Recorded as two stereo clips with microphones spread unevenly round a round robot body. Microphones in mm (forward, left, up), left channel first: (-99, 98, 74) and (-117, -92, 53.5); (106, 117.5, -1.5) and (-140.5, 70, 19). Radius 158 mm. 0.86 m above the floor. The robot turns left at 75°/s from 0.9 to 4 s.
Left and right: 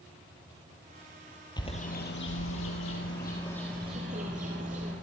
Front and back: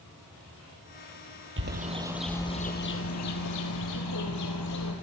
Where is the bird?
150° left, 5.5 m; by 4.9 s 30° right, 5.5 m.